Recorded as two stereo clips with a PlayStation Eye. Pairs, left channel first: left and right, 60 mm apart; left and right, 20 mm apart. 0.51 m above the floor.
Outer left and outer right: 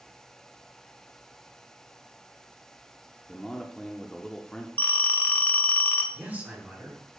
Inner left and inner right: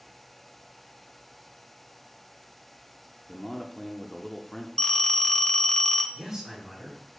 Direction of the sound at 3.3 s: 10° left (ahead or behind).